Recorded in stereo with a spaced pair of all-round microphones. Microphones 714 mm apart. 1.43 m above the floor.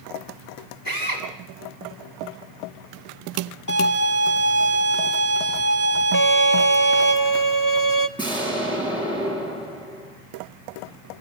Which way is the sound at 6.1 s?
25° left (ahead or behind).